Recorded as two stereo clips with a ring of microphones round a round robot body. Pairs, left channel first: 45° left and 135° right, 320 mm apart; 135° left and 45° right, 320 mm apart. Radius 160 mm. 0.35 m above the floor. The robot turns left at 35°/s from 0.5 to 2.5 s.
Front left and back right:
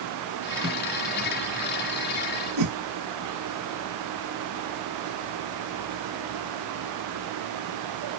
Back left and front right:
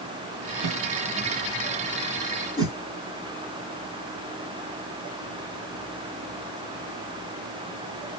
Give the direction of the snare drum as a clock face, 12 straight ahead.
12 o'clock.